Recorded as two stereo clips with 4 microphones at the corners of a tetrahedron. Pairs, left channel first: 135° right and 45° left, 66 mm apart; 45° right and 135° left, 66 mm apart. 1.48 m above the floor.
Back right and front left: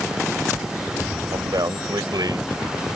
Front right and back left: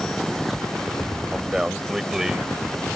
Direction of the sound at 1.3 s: 50° left.